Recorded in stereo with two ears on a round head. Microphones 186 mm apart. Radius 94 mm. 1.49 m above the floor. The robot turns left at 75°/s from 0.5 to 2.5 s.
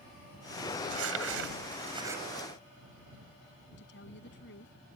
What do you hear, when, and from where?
0.8 s crumpling: 70° right (ahead or behind); by 2.2 s 5° right (ahead or behind)
3.8 s a woman speaking: 60° left (ahead or behind)